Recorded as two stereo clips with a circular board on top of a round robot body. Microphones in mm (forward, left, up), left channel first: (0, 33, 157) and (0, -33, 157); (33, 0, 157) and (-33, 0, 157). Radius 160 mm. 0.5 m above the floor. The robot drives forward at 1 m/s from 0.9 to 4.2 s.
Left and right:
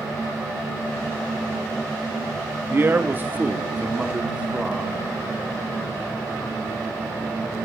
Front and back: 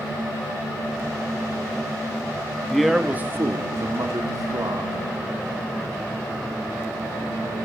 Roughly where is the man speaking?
Right.